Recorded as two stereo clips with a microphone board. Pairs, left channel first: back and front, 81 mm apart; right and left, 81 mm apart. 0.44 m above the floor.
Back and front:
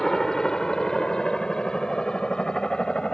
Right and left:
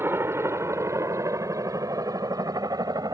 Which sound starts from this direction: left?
A helicopter, at 0.0 s.